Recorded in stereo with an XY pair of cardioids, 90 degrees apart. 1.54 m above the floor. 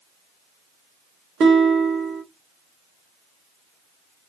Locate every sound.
1.4 s a guitar: 65° right, 1.3 m